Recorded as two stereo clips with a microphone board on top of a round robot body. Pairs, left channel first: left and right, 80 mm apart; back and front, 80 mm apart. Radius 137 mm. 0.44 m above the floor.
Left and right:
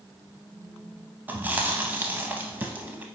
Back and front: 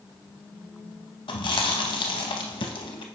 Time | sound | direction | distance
1.3 | chewing | 160° right | 0.5 m